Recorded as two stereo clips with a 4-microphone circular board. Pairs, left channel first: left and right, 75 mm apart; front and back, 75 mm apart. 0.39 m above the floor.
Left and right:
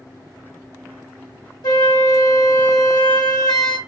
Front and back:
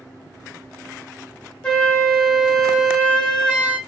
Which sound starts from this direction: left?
A flute, at 1.6 s.